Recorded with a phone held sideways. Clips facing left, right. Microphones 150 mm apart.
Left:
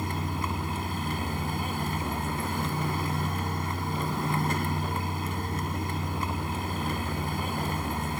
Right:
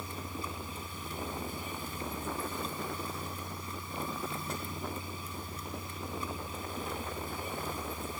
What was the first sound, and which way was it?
A vehicle, 75° left (ahead or behind).